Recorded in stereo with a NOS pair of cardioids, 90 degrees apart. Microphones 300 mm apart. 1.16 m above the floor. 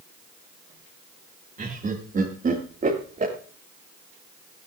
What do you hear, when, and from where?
1.6 s laughter: 30° right, 2.5 m